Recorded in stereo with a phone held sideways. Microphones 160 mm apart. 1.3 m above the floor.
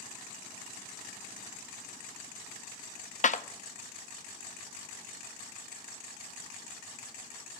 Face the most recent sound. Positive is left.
turn(degrees=50)  # may be behind; listen again after turning